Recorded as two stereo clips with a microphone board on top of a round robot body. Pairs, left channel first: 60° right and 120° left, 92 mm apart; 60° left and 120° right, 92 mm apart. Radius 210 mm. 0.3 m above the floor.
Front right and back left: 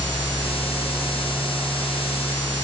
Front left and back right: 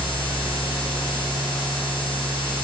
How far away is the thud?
I don't hear a thud.